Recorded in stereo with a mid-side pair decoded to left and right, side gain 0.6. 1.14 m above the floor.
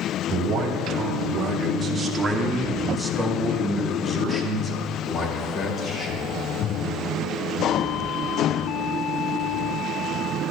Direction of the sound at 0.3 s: 50° right.